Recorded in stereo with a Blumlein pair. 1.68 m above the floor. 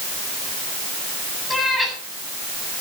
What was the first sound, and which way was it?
A cat meowing, 10° left.